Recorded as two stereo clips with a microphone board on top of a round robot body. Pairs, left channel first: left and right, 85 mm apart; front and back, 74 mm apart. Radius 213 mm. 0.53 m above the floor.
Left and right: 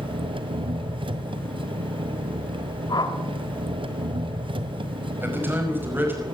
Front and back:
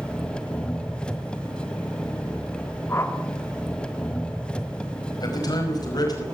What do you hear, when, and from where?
0.0 s an engine running: 75° right, 1.9 m
2.9 s a whoosh: 55° left, 3 m
5.2 s a man speaking: 25° right, 5 m